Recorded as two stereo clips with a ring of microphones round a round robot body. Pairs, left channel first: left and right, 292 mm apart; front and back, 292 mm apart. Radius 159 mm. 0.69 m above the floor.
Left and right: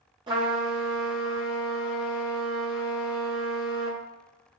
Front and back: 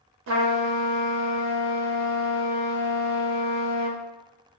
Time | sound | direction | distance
0.3 | a trumpet | 160° right | 0.9 m